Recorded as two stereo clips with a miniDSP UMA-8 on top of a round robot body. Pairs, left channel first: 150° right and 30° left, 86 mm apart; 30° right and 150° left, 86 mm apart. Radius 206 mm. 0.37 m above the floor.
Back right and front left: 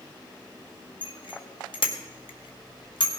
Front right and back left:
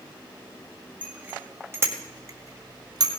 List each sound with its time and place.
1.0 s a bicycle bell: 135° right, 2 m; by 3.1 s 170° right, 2 m